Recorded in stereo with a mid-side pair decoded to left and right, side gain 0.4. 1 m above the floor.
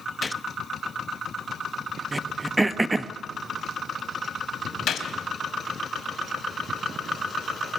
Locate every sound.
0.2 s a gunshot: 25° left, 0.8 m
2.1 s throat clearing: 20° right, 1.0 m
4.9 s a gunshot: 65° left, 3 m